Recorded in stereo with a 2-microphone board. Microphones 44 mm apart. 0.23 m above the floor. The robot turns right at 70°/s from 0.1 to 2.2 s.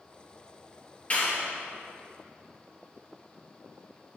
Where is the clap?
35° left (ahead or behind), 3.5 m; by 1.5 s 60° left (ahead or behind), 3.5 m.